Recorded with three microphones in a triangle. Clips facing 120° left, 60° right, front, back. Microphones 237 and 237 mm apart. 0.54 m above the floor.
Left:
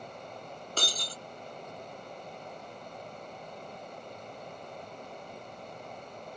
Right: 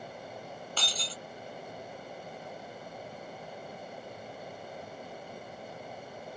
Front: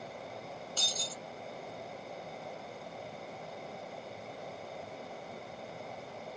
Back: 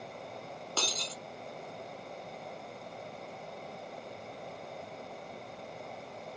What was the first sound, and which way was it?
Breaking glass, 165° left.